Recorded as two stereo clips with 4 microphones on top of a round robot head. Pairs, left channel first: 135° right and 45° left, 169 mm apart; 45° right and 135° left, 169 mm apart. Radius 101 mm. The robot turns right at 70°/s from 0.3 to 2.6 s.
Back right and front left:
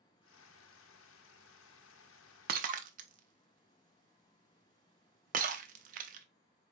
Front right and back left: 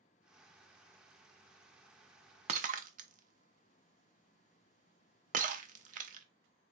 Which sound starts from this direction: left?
Breaking glass, at 2.5 s.